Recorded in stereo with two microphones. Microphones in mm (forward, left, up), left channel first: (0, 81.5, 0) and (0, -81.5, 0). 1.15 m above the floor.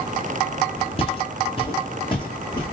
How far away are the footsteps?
About 2.5 m.